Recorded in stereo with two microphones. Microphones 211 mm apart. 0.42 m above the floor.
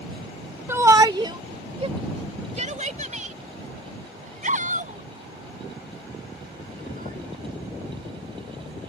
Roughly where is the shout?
Centre.